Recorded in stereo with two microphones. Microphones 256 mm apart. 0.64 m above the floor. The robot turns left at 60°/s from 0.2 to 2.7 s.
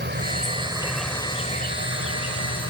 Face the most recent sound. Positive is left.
turn(degrees=75)